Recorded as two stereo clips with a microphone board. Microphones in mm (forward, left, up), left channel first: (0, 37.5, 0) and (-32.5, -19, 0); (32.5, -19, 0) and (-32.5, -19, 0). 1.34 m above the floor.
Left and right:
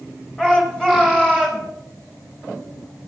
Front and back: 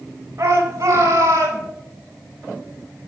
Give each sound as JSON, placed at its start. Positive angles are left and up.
{"t": 0.4, "sound": "a shout", "azimuth_deg": 140, "distance_m": 5.5}